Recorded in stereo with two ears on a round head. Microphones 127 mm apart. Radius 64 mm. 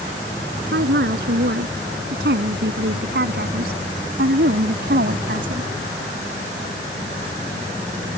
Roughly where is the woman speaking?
Right.